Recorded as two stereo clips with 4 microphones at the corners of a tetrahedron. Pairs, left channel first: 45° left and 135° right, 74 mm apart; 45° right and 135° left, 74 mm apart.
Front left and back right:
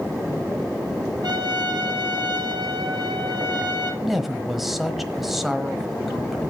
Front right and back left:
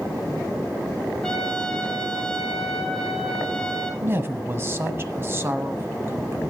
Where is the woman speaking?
140° left, 1.2 m.